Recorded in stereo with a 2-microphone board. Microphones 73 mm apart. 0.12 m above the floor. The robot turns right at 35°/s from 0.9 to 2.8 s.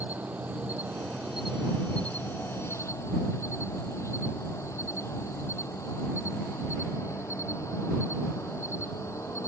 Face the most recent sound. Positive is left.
turn(degrees=45)